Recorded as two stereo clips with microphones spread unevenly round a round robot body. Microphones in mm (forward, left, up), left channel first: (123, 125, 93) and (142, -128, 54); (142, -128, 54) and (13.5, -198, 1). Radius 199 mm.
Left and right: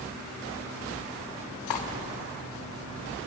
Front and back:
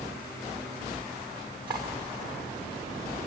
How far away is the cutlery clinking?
About 1.4 m.